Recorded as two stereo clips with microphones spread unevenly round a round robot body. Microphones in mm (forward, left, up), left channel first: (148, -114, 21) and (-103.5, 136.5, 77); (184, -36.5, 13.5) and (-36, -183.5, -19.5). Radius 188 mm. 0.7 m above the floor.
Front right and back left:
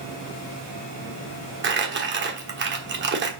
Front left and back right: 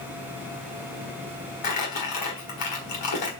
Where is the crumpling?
70° left, 1.5 m.